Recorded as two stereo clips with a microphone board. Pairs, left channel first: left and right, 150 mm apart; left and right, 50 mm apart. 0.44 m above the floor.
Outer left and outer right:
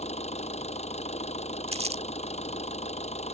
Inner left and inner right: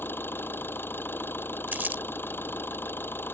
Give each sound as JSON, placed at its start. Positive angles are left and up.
{"t": 0.0, "sound": "an engine running", "side_deg": 45}
{"t": 1.7, "sound": "crumpling", "side_deg": -45}